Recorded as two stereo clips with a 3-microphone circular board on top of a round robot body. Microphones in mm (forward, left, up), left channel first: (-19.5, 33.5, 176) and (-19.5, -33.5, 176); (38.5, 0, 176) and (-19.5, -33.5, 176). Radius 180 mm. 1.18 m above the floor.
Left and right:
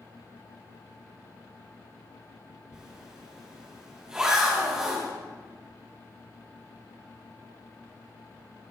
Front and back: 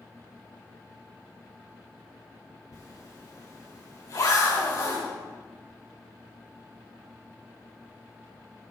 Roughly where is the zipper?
Ahead.